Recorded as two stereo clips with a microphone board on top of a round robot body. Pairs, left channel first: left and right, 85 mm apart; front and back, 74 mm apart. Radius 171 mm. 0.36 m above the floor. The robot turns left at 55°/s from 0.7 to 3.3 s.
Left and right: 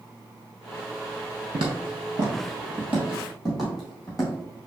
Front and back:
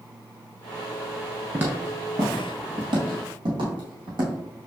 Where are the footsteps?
115° right, 0.5 m; by 4.3 s 175° right, 2 m.